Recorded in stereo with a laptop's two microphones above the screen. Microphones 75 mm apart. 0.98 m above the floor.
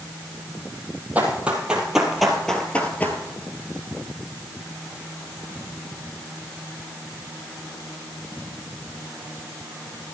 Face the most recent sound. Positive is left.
turn(degrees=30)  # may be behind; listen again after turning